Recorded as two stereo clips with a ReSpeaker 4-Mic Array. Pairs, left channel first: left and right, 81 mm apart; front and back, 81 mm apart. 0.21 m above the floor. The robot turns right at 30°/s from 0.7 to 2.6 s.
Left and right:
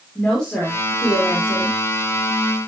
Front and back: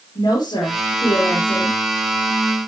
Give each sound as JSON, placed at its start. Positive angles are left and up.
{"t": 0.1, "sound": "a woman speaking", "azimuth_deg": 10, "distance_m": 4.5}